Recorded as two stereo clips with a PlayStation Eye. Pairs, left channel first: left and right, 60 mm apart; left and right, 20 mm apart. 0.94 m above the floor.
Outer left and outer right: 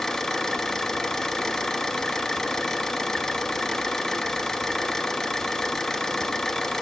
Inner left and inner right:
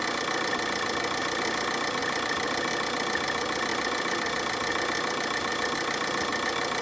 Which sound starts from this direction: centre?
An engine running, at 0.0 s.